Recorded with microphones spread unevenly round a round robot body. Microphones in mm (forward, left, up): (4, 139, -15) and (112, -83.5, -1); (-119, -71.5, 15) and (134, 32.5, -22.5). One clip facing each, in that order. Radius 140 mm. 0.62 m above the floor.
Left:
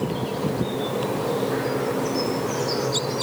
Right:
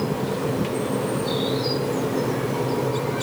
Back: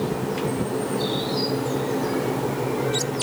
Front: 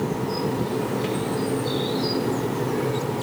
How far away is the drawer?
No drawer in this recording.